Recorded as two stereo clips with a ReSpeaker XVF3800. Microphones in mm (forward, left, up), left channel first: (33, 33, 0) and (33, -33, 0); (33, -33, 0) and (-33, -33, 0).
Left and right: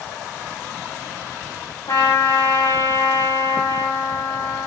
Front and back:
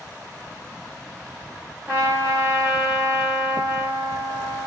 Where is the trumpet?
110° left, 4 m.